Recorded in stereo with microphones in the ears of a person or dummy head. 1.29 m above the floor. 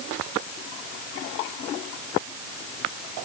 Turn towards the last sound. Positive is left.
No sound to turn to.